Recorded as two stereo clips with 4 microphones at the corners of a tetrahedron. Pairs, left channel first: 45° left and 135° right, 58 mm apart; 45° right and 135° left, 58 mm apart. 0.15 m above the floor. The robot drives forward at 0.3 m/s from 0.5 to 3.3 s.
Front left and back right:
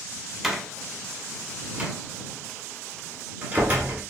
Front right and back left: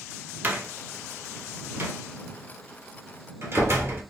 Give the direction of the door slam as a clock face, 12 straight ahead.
7 o'clock.